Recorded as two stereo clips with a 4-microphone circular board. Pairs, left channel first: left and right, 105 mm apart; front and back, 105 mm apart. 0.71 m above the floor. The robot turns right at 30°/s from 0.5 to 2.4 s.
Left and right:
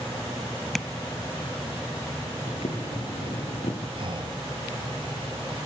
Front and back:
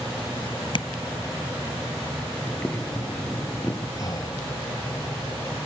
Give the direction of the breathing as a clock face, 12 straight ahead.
2 o'clock.